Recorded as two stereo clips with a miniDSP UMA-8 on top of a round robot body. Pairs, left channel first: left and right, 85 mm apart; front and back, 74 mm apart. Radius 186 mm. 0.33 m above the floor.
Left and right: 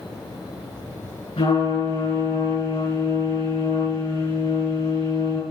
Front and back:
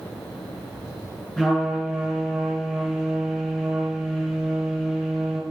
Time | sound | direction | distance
1.4 | a trumpet | 80° left | 6.5 m